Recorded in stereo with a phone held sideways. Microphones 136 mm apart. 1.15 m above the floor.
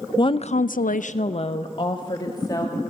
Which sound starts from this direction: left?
A woman speaking, at 0.2 s.